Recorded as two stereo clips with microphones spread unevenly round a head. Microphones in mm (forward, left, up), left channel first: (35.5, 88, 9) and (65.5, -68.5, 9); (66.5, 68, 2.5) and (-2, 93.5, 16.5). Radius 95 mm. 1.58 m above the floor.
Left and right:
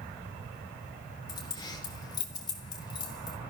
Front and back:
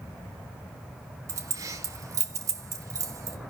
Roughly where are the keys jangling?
Behind.